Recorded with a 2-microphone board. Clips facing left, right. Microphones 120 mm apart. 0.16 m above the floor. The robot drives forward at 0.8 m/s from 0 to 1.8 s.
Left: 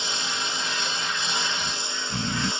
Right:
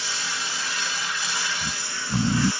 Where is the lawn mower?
20° left (ahead or behind).